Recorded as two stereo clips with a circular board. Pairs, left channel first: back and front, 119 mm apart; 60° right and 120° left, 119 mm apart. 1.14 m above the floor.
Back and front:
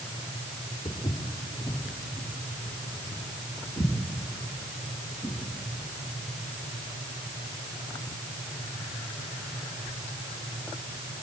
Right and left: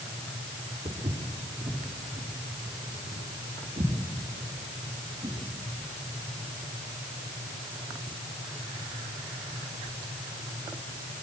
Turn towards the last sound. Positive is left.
turn(degrees=95)